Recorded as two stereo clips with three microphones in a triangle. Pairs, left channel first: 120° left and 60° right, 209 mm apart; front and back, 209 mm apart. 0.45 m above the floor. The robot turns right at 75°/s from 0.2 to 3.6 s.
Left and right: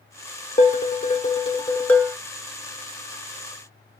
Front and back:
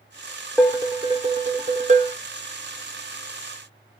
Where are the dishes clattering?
100° left, 0.5 m; by 2.2 s 145° right, 0.5 m.